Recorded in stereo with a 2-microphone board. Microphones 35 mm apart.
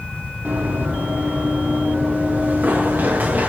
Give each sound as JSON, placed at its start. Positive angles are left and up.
{"t": 0.5, "sound": "running footsteps", "side_deg": -65, "distance_m": 3.5}